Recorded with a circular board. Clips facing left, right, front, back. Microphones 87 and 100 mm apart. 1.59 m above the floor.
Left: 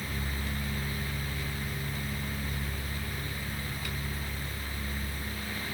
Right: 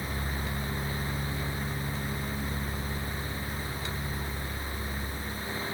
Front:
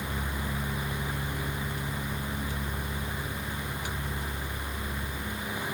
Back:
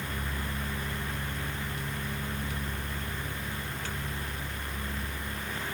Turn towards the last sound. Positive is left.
No sound to turn to.